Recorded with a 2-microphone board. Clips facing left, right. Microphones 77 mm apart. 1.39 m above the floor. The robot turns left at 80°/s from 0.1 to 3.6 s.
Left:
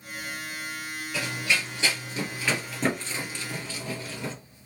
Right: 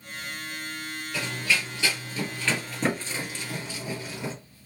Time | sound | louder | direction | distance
1.1 | running footsteps | even | centre (ahead or behind) | 1.7 m